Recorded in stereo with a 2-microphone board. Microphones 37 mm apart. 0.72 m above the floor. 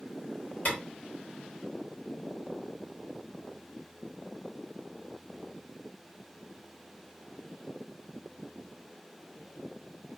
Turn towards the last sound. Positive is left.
turn(degrees=45)  # may be behind; listen again after turning